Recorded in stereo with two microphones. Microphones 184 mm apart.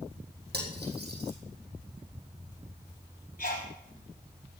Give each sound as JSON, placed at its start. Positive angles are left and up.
{"t": 0.5, "sound": "cutlery clinking", "side_deg": -65, "distance_m": 4.0}
{"t": 3.4, "sound": "a sneeze", "side_deg": 50, "distance_m": 4.0}